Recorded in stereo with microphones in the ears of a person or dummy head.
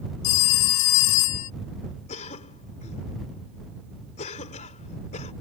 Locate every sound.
0.2 s a phone ringing: 60° left (ahead or behind)
2.1 s a cough: 45° left (ahead or behind)